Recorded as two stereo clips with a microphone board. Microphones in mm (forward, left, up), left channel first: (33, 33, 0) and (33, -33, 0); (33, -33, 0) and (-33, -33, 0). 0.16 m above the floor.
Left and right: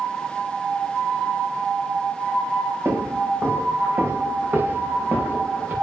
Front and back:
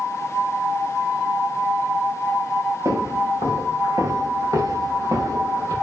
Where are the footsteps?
140° right, 7 m; by 5.7 s 155° right, 7 m.